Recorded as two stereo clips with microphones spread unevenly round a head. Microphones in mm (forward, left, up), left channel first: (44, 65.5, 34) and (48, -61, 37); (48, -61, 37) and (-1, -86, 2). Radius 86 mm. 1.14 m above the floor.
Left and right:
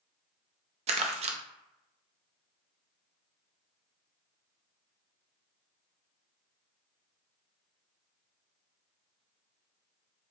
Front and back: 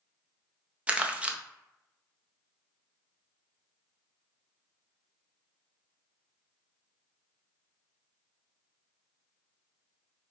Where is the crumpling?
60° right, 0.6 m.